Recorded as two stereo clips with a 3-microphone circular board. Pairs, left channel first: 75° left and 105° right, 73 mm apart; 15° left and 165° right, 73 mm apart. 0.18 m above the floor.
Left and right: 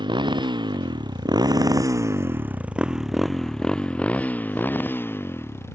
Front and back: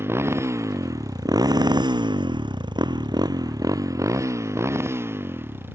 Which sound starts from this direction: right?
A motorcycle, at 0.0 s.